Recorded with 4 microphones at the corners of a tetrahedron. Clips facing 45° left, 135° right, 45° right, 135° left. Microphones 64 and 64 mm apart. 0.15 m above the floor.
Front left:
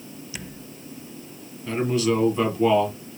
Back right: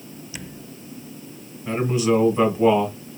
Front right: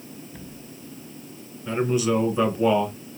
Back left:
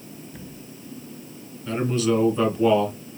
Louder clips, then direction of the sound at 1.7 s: Back right 2 dB, even; 100° right.